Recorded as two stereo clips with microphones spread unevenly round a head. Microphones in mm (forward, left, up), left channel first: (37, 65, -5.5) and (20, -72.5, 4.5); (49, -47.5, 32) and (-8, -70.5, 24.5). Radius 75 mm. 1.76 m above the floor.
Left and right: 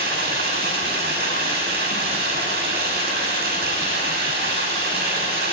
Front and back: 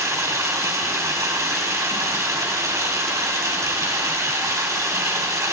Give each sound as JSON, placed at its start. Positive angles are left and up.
{"t": 0.0, "sound": "running water", "azimuth_deg": -125, "distance_m": 6.5}